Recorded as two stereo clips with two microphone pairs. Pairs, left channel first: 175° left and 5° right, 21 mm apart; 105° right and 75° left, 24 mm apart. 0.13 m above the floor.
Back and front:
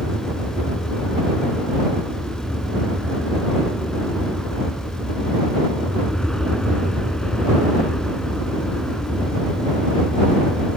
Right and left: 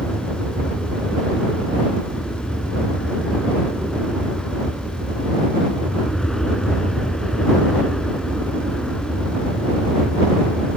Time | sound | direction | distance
0.0 | an aircraft | 160° right | ?